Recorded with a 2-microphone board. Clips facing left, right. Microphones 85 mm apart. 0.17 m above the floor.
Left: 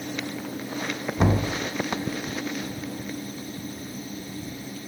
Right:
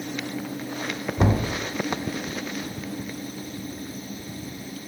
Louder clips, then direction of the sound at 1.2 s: Even; 5° right (ahead or behind).